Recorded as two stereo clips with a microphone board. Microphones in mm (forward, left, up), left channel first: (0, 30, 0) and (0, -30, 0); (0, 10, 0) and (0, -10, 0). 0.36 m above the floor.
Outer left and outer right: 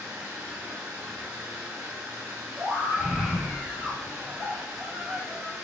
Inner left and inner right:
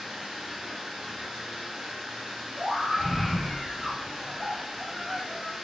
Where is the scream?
35° right (ahead or behind), 1.8 m.